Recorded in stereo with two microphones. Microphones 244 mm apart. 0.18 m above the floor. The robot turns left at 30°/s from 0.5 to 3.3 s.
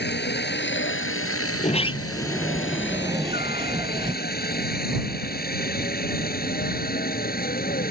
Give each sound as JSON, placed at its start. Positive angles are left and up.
{"t": 0.0, "sound": "a helicopter", "side_deg": 45}
{"t": 1.6, "sound": "a sliding door", "azimuth_deg": 30}